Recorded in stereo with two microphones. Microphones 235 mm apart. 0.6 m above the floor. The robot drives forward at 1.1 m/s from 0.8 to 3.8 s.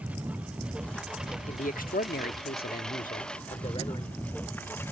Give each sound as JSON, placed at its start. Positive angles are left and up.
{"t": 0.0, "sound": "a lawn mower", "side_deg": -5}
{"t": 1.5, "sound": "a man speaking", "side_deg": 30}